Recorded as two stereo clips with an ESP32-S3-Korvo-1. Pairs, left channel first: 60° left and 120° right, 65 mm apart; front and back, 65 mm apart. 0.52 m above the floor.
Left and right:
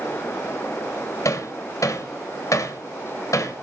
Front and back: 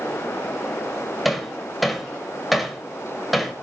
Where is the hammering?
90° left, 1.8 m.